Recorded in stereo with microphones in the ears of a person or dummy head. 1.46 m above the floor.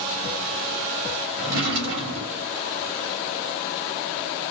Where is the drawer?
75° right (ahead or behind), 2 m.